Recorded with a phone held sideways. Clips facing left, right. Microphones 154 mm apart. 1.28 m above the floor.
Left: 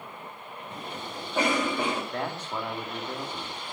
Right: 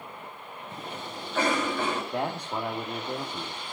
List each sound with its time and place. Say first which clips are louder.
0.7 s a cough: even; 15° left (ahead or behind), 6 m
2.1 s a man speaking: right 2 dB; 15° right (ahead or behind), 2.5 m